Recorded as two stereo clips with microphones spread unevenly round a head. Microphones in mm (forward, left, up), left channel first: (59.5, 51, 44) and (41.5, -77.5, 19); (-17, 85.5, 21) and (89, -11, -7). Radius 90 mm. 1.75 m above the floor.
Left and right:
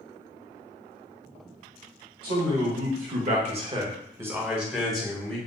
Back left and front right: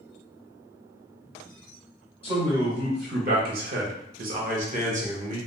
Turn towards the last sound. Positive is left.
turn(degrees=0)